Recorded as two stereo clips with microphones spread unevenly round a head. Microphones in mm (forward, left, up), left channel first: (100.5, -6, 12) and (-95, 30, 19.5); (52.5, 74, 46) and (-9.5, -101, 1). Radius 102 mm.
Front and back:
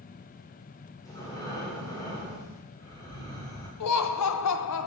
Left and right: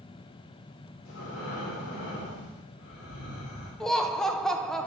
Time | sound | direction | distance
1.1 | breathing | 65° left | 2.5 m
3.8 | laughter | 15° right | 0.7 m